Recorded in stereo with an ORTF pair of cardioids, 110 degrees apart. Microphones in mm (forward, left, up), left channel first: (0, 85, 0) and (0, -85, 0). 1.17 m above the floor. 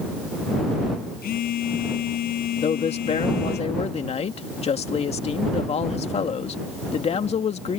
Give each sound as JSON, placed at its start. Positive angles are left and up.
{"t": 1.2, "sound": "a phone buzzing", "azimuth_deg": 65}
{"t": 2.6, "sound": "a man speaking", "azimuth_deg": 40}